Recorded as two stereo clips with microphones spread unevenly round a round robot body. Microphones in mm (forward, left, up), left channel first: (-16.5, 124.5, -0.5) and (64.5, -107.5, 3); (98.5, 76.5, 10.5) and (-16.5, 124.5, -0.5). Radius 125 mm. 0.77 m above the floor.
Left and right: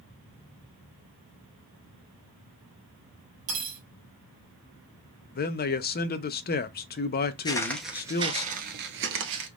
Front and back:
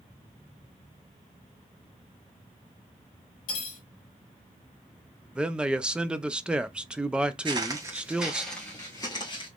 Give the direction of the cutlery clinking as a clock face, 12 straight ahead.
1 o'clock.